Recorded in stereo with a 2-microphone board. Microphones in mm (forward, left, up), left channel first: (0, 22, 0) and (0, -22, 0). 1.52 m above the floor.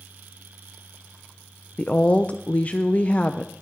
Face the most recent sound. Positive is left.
turn(degrees=35)  # may be behind; listen again after turning